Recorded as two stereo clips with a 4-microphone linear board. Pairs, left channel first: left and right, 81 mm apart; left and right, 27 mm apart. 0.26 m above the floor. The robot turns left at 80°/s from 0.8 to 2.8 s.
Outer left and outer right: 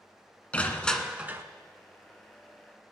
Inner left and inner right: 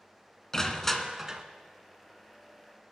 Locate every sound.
0.5 s crushing: 15° left, 1.1 m; by 1.4 s 35° right, 1.1 m